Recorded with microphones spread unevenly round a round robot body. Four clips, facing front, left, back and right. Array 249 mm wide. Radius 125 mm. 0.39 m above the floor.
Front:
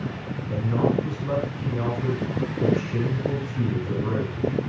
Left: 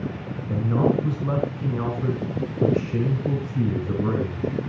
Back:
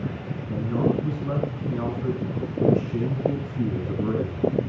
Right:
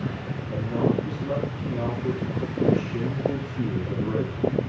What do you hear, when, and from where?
0.5 s a man speaking: 90° left, 4 m